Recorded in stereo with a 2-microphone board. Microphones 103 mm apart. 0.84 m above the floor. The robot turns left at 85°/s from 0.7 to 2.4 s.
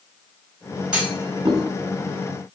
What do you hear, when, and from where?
0.9 s a clunk: 10° right (ahead or behind), 2.5 m; by 1.6 s 70° right (ahead or behind), 2.5 m